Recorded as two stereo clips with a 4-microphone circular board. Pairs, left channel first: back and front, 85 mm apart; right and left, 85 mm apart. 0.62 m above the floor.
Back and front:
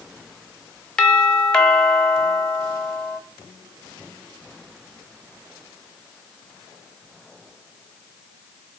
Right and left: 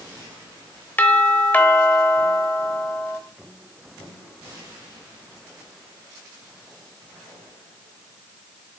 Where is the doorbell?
115° right, 1.1 m.